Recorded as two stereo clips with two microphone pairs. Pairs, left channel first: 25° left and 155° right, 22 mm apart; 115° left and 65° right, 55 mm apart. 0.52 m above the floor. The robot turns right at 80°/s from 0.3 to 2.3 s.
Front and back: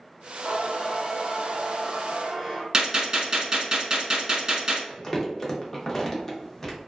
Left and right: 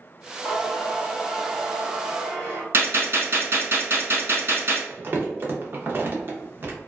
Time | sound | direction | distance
0.4 | singing | 135° left | 1.6 m
2.7 | a gunshot | 100° right | 0.8 m
4.9 | crumpling | 40° right | 0.6 m